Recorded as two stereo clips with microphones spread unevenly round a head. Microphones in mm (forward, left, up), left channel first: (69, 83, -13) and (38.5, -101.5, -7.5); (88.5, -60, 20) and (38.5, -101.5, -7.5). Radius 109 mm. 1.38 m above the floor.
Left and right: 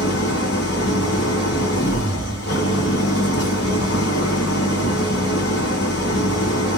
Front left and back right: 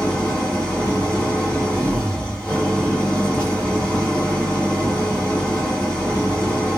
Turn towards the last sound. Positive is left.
turn(degrees=125)